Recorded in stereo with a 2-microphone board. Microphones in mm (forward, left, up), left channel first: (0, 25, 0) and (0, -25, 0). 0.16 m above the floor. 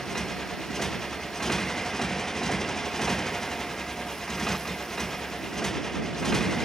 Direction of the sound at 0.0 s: 10° left (ahead or behind).